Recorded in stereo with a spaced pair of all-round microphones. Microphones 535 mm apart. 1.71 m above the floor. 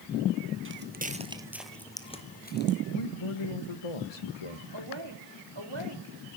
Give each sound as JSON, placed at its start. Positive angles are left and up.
{"t": 0.7, "sound": "footsteps", "side_deg": -20, "distance_m": 1.8}
{"t": 2.9, "sound": "a man speaking", "side_deg": 70, "distance_m": 1.7}
{"t": 4.7, "sound": "a woman speaking", "side_deg": -50, "distance_m": 3.5}